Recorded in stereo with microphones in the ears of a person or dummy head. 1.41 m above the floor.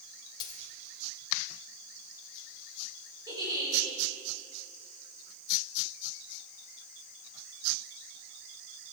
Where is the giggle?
20° right (ahead or behind), 5 m.